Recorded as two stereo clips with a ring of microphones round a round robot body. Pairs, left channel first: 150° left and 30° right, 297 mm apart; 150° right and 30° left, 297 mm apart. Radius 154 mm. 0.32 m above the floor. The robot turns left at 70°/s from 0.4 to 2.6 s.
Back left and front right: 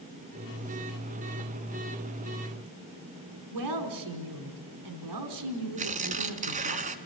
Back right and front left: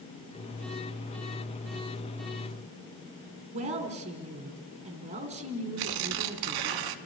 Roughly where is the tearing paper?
Ahead left.